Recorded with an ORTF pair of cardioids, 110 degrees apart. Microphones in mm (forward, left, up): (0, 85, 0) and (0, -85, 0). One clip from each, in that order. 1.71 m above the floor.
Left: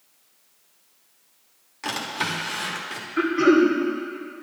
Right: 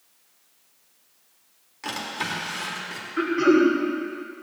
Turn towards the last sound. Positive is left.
turn(degrees=10)